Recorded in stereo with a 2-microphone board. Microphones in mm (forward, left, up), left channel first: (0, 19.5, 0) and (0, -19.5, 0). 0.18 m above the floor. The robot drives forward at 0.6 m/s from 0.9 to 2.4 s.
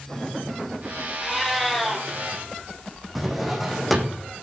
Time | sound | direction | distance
1.2 | a cat meowing | 5° left (ahead or behind) | 1.6 m
3.1 | a drawer | 5° right (ahead or behind) | 2 m